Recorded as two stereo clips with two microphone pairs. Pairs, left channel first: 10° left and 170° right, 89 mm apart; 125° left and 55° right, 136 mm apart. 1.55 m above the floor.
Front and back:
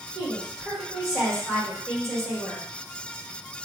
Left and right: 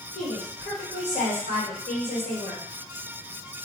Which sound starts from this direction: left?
A woman speaking, at 0.1 s.